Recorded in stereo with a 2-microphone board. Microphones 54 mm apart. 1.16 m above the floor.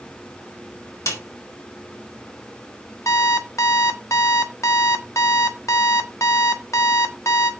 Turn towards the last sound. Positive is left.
turn(degrees=65)  # may be behind; listen again after turning